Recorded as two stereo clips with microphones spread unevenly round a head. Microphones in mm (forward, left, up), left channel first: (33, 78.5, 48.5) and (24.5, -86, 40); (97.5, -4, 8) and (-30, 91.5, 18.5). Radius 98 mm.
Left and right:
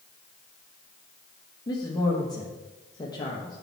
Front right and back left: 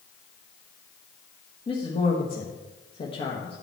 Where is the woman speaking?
20° left, 1.3 m.